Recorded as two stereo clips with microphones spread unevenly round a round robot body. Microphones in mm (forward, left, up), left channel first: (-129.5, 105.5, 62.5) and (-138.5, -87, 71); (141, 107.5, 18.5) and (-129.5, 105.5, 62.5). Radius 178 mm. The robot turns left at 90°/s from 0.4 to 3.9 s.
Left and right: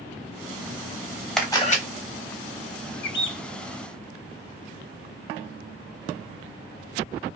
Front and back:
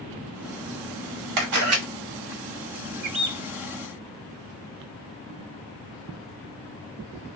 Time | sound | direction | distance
1.4 | a camera shutter | 175° left | 1.0 m
3.0 | a bird | 125° left | 0.5 m